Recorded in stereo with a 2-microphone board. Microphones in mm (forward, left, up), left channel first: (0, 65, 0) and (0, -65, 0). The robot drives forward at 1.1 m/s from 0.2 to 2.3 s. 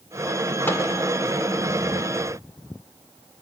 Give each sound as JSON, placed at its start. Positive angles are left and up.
{"t": 0.7, "sound": "a microwave", "side_deg": 15, "distance_m": 2.0}